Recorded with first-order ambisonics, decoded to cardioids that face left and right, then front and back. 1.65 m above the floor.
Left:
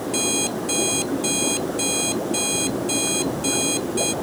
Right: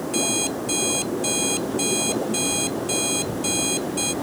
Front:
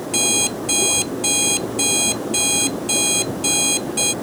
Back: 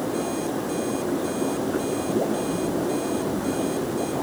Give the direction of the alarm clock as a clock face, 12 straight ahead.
12 o'clock.